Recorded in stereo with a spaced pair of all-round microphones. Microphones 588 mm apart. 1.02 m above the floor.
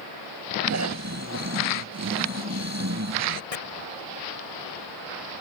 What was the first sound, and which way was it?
Snoring, 25° right (ahead or behind).